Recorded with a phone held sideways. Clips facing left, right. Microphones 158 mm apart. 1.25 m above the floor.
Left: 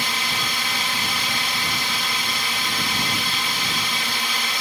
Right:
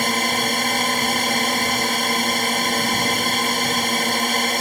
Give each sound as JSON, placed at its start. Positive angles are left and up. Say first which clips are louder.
{"t": 0.0, "sound": "a drone", "louder": "right 7 dB", "side_deg": -50}